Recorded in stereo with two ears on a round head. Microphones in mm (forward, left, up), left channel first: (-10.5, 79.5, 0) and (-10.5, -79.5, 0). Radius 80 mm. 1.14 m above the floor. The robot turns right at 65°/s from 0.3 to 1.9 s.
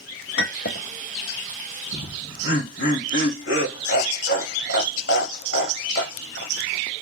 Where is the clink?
70° left (ahead or behind), 0.9 m; by 0.9 s 45° left (ahead or behind), 0.9 m.